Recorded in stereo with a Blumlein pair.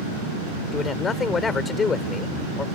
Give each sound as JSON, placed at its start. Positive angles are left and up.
{"t": 0.7, "sound": "a man speaking", "azimuth_deg": 20}